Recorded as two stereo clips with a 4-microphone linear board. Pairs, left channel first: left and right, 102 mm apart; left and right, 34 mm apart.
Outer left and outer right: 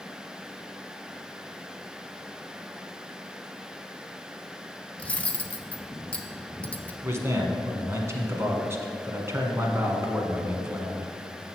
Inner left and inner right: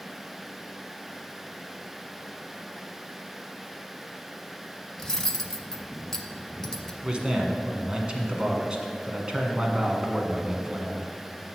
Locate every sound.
5.0 s cutlery clinking: 15° left (ahead or behind), 0.8 m
7.0 s a man speaking: 25° right (ahead or behind), 1.4 m